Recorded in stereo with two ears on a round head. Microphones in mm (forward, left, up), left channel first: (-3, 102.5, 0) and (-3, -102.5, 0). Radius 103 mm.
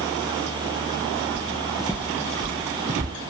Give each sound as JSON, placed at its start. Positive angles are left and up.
{"t": 1.4, "sound": "footsteps", "side_deg": 5, "distance_m": 2.5}